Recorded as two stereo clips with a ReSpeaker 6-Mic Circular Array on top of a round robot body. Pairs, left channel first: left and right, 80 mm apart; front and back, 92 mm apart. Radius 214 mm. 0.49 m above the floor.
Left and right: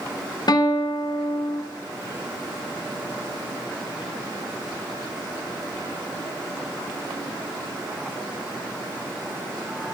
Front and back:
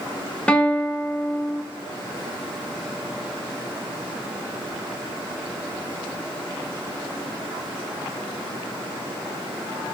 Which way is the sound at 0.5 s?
75° left.